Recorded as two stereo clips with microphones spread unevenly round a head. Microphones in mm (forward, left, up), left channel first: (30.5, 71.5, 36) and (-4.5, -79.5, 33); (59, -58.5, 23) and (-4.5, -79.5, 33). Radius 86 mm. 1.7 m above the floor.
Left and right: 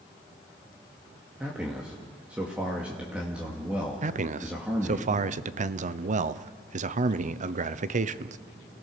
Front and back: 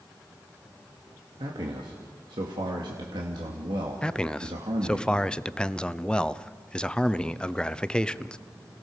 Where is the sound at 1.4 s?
175° left, 2 m.